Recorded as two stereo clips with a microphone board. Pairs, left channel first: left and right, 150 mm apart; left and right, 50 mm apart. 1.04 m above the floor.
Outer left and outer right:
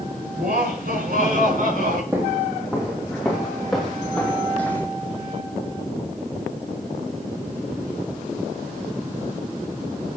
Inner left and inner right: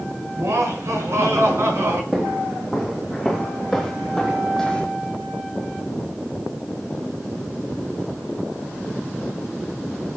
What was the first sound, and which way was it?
Laughter, 75° right (ahead or behind).